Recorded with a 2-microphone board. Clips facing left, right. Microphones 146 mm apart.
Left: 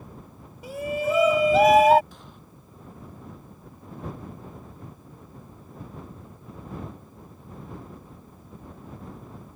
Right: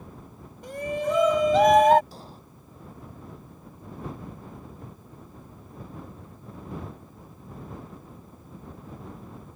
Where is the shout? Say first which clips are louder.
Left 1 dB; 5° left (ahead or behind).